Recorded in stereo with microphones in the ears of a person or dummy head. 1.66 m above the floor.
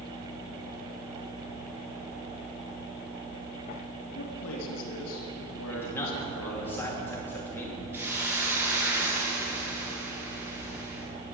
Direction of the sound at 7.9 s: 10° right (ahead or behind).